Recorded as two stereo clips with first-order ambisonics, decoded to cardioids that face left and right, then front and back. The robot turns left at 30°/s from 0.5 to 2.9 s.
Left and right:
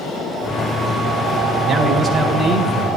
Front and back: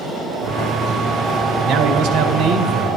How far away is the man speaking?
About 2.5 m.